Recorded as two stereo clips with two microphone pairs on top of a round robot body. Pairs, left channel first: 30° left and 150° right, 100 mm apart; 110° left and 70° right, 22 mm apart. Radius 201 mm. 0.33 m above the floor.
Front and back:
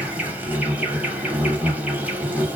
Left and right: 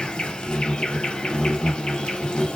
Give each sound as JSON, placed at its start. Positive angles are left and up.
{"t": 0.0, "sound": "an insect", "azimuth_deg": 130, "distance_m": 1.3}